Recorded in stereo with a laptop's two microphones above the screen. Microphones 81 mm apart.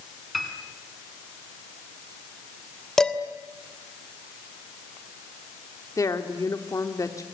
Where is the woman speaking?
45° left (ahead or behind), 2.5 m.